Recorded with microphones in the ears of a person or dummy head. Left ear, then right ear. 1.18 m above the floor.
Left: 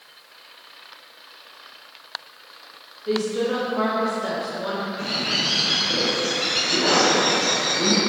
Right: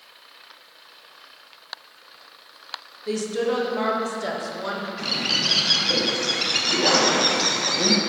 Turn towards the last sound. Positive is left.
turn(degrees=-45)  # may be behind; listen again after turning